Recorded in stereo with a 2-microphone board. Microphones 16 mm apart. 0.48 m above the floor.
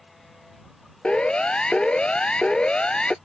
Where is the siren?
75° left (ahead or behind); by 3.1 s 80° left.